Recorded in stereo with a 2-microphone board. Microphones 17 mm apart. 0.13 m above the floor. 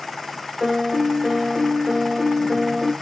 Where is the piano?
25° right (ahead or behind), 3.5 m.